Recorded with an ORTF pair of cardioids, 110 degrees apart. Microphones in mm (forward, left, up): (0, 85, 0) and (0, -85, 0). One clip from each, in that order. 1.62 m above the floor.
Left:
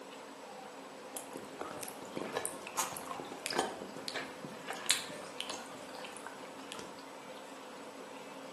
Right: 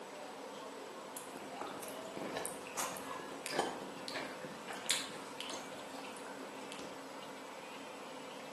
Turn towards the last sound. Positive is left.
turn(degrees=30)